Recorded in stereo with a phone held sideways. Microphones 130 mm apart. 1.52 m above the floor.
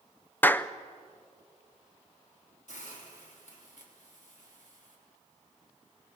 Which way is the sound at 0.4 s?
15° left (ahead or behind).